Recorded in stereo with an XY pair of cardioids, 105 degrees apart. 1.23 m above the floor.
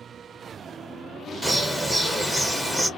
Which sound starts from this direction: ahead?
A bird, at 1.4 s.